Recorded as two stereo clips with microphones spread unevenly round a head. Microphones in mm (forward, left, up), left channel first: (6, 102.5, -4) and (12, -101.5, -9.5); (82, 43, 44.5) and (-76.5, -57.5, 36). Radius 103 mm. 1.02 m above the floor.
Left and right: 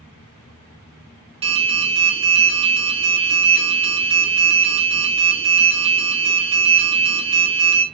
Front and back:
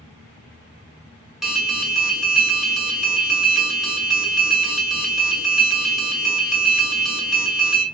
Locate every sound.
1.4 s an alarm: 65° right, 0.8 m